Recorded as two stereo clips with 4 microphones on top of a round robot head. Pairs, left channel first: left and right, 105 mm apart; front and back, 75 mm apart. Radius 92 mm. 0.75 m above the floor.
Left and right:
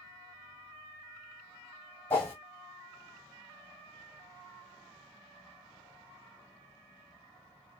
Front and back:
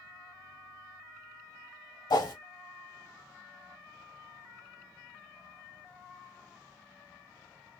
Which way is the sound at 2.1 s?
20° left.